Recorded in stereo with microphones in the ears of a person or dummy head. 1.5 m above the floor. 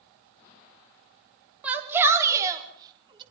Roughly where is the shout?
Centre.